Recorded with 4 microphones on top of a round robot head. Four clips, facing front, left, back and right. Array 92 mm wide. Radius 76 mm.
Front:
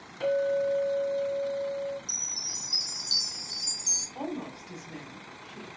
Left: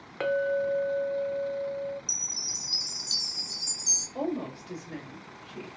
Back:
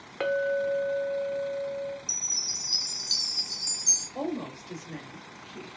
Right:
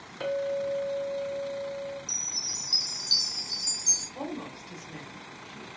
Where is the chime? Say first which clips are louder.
Right 2 dB, even; 140° left, 1.5 m.